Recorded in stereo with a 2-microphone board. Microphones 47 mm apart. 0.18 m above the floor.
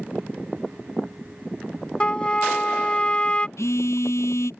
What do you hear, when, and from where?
2.0 s a trumpet: 25° left (ahead or behind)
3.6 s a phone buzzing: 80° left